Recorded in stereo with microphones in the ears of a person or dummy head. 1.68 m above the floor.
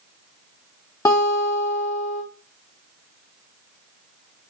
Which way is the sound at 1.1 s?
15° left (ahead or behind).